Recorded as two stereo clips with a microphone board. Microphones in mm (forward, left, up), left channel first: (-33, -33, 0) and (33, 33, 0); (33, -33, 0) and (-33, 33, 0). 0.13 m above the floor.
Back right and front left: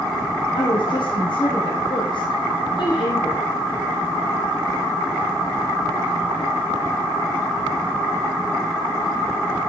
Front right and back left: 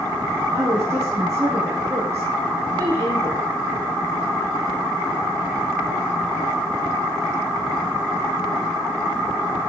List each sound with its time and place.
0.5 s a woman speaking: 165° right, 3.5 m